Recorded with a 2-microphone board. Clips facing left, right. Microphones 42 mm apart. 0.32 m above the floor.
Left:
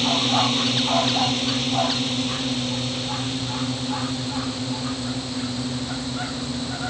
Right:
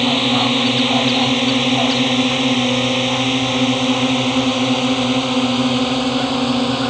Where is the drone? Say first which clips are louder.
Right 5 dB; 35° right (ahead or behind); by 6.9 s 80° right.